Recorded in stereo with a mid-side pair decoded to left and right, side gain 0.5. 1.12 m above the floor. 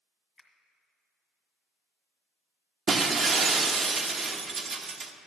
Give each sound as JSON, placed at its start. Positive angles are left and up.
{"t": 0.4, "sound": "a finger snap", "azimuth_deg": 25, "distance_m": 1.8}
{"t": 2.9, "sound": "breaking glass", "azimuth_deg": -45, "distance_m": 0.8}